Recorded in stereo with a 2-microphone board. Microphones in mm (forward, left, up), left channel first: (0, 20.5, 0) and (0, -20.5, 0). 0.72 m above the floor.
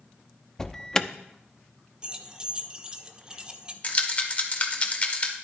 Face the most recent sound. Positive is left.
turn(degrees=30)  # may be behind; listen again after turning